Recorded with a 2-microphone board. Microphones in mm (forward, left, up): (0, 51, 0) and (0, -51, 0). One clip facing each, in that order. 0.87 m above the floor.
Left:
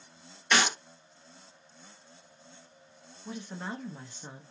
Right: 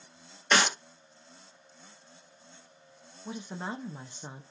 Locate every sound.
0.5 s a clap: 35° right (ahead or behind), 2.0 m
3.2 s a woman speaking: 20° right (ahead or behind), 0.6 m